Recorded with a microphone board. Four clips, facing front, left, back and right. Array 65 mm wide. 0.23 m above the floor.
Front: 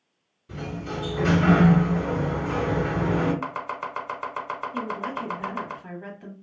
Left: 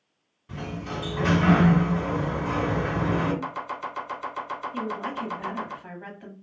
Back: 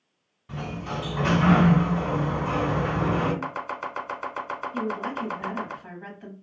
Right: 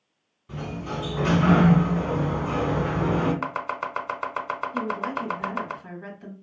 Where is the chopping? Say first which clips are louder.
Right 3 dB, front 1 dB; 85° right, 0.8 m.